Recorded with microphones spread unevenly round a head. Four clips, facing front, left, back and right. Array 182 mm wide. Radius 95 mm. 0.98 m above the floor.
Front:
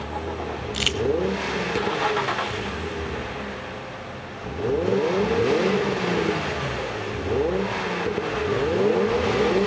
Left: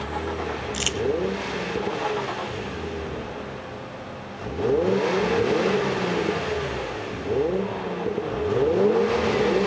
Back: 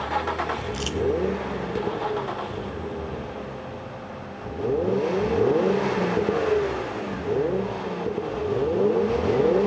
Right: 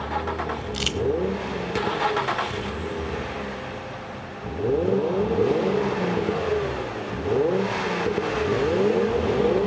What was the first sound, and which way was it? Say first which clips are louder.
Crumpling: even, front 1 dB; 15° left.